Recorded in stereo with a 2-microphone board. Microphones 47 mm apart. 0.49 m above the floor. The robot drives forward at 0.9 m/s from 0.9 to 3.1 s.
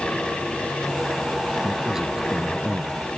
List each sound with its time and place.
1.6 s a man speaking: 10° right (ahead or behind)